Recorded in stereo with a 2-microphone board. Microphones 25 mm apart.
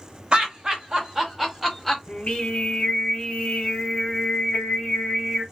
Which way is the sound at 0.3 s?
40° right (ahead or behind).